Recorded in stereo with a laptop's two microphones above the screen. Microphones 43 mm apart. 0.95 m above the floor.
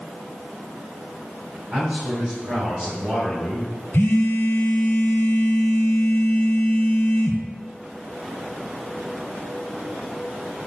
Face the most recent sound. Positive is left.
turn(degrees=70)  # may be behind; listen again after turning